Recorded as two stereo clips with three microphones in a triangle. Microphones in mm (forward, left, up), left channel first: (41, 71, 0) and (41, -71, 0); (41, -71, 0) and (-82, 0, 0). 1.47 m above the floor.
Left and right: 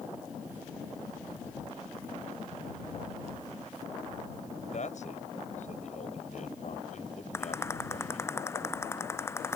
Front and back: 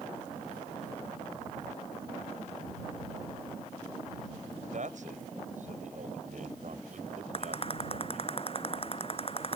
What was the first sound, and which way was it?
A man speaking, 120° left.